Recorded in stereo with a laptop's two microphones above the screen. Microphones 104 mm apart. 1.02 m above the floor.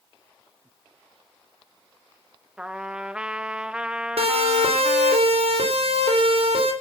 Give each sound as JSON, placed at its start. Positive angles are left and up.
{"t": 2.6, "sound": "a trumpet", "side_deg": -10, "distance_m": 0.8}
{"t": 4.2, "sound": "a siren", "side_deg": -70, "distance_m": 3.0}